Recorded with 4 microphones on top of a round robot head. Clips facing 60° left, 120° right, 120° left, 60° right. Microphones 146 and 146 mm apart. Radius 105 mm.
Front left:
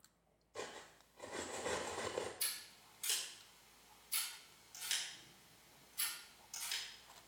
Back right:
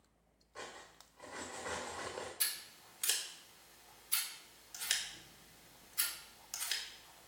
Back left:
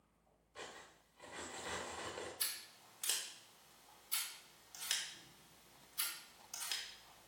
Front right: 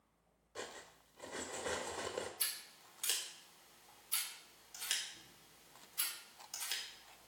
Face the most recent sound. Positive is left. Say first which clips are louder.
# back right 4 dB, front right 1 dB
turn(degrees=-145)